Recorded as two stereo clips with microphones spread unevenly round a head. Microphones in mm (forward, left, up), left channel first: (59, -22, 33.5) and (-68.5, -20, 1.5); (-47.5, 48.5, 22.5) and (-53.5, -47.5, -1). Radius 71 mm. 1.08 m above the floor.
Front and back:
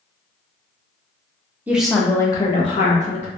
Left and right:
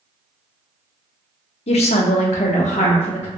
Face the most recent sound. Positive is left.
turn(degrees=40)